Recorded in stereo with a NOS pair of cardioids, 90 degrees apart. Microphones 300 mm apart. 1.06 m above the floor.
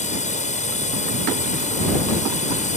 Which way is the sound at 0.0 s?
25° left.